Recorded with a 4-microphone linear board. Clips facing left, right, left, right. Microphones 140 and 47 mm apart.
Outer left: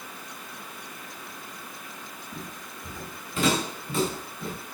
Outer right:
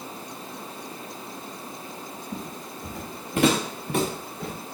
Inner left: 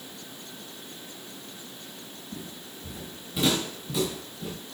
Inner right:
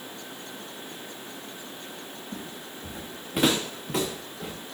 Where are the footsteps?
50° right (ahead or behind), 3 m; by 4.5 s 60° right (ahead or behind), 4 m.